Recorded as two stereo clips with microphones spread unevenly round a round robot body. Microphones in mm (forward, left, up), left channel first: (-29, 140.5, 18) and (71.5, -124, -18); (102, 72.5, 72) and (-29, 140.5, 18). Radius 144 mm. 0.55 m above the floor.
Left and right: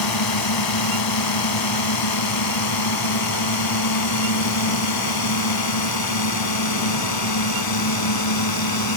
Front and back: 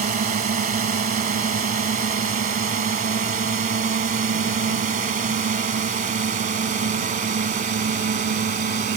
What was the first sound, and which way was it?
A drone, 125° left.